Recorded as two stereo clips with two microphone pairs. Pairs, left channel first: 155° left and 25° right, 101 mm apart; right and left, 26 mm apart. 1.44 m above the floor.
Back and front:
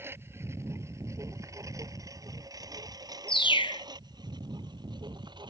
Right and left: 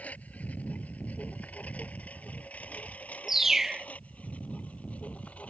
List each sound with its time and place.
0.0 s a lawn mower: 95° right; by 5.5 s 65° right
3.3 s a bird: 165° left